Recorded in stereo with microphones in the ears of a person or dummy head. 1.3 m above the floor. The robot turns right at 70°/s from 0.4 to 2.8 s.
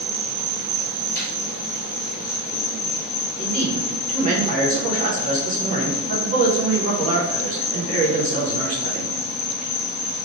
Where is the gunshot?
45° left (ahead or behind), 1.6 m; by 1.3 s 55° left (ahead or behind), 1.6 m.